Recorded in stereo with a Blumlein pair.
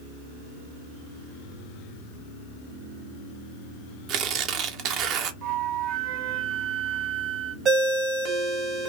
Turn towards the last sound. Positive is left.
turn(degrees=-25)